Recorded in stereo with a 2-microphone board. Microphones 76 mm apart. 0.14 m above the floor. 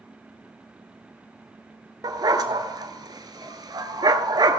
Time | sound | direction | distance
2.0 | a dog barking | 60° right (ahead or behind) | 0.7 m